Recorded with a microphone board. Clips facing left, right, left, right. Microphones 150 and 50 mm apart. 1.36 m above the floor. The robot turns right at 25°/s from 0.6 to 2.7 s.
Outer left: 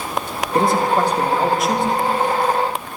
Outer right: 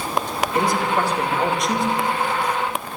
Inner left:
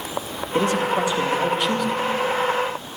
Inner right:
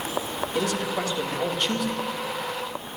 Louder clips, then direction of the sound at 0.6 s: Outer left 5 dB, inner left 7 dB; 150° left.